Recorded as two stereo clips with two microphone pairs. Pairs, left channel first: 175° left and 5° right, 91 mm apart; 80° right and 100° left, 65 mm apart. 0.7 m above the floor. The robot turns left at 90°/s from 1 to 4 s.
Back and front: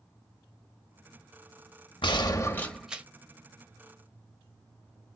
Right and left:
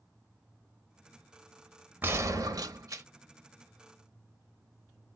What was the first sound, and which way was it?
A gunshot, 160° left.